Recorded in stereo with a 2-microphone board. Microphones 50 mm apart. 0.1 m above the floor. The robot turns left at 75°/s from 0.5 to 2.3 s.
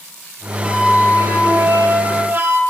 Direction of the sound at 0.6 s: 10° right.